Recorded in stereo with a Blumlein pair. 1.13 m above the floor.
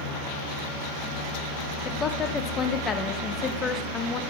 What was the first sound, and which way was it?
A woman speaking, 20° left.